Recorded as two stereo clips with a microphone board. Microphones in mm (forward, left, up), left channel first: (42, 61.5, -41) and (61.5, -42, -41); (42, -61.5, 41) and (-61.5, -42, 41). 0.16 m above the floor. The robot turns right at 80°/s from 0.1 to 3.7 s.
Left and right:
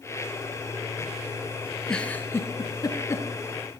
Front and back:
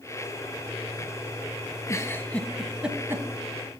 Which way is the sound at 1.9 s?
20° left.